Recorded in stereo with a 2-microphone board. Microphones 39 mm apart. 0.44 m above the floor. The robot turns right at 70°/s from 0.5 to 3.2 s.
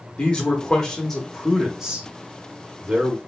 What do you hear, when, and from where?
0.2 s a man speaking: 25° left (ahead or behind), 0.8 m; by 3.2 s 20° right (ahead or behind), 0.8 m